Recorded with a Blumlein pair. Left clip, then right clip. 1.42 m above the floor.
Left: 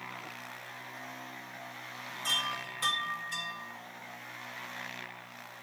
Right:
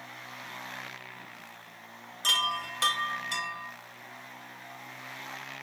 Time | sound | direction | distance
2.2 | a chime | 40° right | 3 m